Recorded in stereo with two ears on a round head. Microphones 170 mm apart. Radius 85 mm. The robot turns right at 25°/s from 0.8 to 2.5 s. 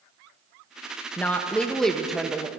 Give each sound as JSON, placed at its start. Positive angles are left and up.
{"t": 1.2, "sound": "a woman speaking", "side_deg": 10, "distance_m": 0.8}